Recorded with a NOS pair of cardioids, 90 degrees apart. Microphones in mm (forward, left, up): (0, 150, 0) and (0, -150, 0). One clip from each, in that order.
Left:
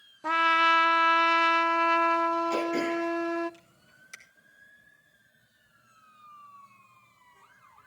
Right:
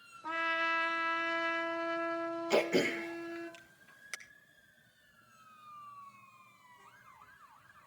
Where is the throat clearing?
50° right, 1.8 m.